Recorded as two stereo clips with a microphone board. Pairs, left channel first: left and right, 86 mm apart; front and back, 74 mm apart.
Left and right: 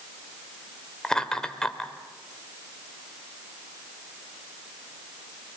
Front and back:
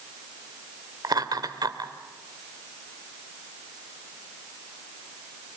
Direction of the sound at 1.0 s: 170° left.